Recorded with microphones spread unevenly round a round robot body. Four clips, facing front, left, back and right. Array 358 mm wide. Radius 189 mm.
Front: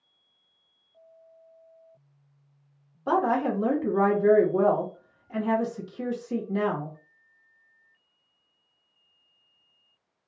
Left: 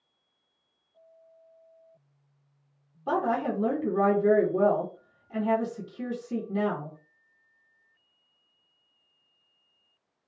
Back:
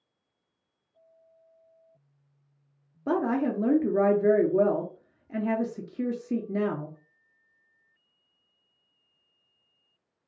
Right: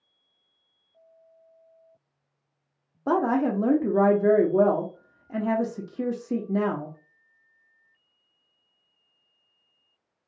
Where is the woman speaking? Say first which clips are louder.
Right 4 dB, front 2 dB; 120° right, 1.2 m.